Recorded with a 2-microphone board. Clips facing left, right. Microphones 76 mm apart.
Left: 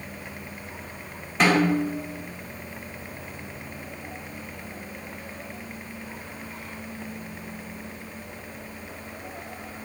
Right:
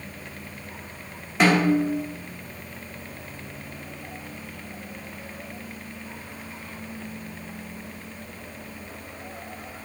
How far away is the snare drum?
About 1.0 m.